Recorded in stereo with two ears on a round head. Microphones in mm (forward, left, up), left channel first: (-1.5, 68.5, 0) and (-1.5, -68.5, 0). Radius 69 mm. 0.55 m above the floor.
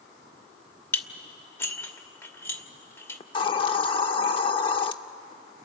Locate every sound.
0.9 s dishes clattering: 15° left (ahead or behind), 1.0 m
3.2 s a hiss: 30° left (ahead or behind), 0.7 m